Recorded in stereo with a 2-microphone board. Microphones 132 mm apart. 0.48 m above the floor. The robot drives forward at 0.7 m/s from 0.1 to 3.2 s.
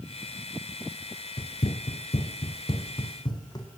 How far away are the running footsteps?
About 0.5 m.